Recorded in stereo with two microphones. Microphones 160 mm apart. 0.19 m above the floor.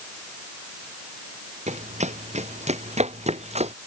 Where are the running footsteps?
45° right (ahead or behind).